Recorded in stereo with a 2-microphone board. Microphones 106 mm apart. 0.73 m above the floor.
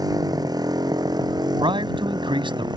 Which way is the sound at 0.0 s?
35° right (ahead or behind).